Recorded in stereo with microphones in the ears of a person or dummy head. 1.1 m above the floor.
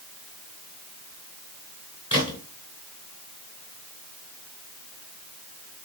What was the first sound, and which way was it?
A gunshot, 30° left (ahead or behind).